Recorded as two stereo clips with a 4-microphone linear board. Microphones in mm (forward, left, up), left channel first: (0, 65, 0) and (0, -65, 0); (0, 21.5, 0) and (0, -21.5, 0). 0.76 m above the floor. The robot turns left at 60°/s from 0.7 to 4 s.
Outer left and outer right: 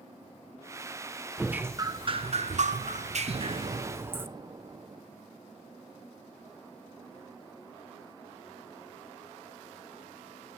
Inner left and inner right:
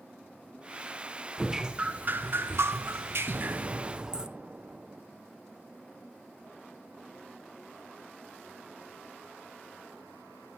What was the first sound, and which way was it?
Dripping, 5° right.